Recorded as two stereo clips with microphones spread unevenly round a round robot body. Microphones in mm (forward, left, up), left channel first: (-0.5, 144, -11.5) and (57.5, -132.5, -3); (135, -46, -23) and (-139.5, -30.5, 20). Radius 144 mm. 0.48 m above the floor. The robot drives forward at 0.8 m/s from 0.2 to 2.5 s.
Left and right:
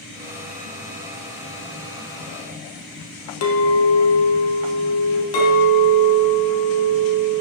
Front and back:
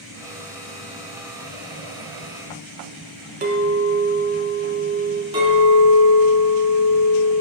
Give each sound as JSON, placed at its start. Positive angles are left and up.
{"t": 3.4, "sound": "a clink", "azimuth_deg": 115, "distance_m": 1.1}
{"t": 5.3, "sound": "a clink", "azimuth_deg": 105, "distance_m": 2.5}